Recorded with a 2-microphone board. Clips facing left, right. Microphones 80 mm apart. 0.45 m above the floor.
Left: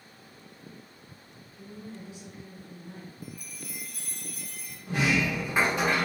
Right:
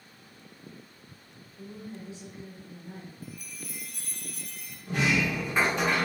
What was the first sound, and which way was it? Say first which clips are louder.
A woman speaking: right 1 dB; 25° right (ahead or behind).